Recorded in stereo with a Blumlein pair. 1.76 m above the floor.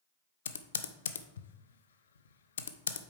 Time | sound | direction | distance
0.5 | typing on a keyboard | 65° left | 0.6 m